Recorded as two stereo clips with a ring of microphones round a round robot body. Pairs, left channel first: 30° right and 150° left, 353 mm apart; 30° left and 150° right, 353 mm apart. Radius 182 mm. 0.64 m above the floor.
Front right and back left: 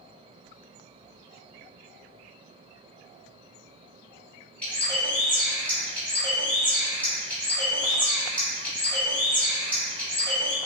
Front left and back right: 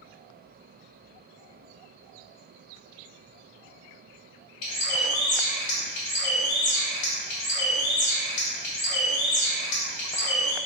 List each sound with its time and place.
4.6 s a bird: 55° left, 1.7 m